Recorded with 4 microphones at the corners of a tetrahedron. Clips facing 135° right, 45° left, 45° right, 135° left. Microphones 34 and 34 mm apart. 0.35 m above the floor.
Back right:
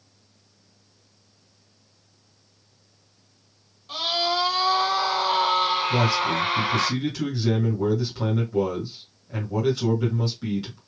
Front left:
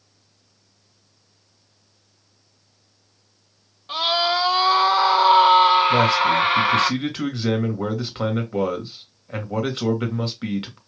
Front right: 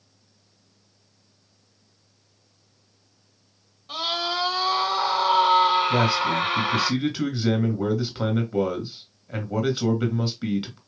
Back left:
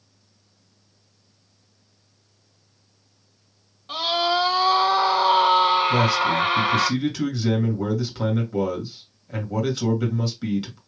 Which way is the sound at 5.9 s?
20° left.